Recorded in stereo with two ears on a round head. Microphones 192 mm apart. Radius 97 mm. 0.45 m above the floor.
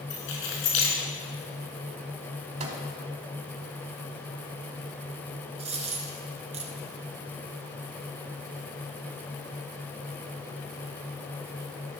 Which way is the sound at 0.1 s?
50° left (ahead or behind).